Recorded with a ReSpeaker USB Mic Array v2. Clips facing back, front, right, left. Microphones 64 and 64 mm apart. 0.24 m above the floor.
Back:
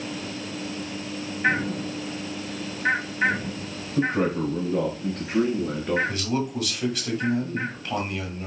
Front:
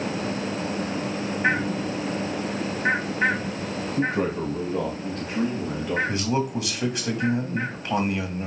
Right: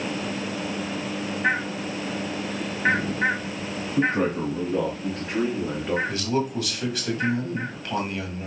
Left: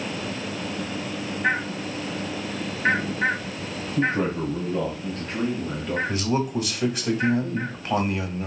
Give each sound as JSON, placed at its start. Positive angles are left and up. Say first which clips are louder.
{"t": 4.0, "sound": "a man speaking", "louder": "back 2 dB, right 1 dB", "azimuth_deg": -155, "distance_m": 2.0}
{"t": 6.1, "sound": "a man speaking", "louder": "front 2 dB, left 1 dB", "azimuth_deg": 35, "distance_m": 1.2}